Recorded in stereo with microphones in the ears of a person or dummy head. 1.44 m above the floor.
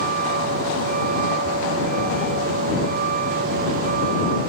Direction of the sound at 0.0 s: 55° right (ahead or behind).